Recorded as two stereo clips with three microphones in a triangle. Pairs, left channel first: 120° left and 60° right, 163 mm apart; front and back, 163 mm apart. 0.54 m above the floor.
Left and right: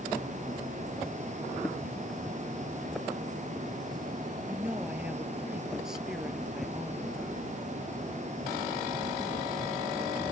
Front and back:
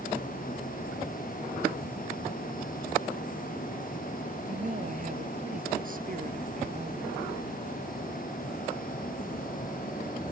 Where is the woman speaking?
140° right; by 7.2 s 150° right.